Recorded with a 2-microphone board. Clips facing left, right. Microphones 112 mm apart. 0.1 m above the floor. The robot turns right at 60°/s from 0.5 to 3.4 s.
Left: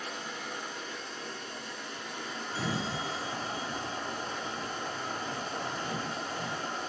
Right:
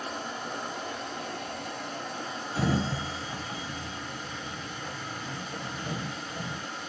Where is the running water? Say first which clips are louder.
Right 4 dB; 135° right, 1.3 m; by 6.9 s 40° left, 1.3 m.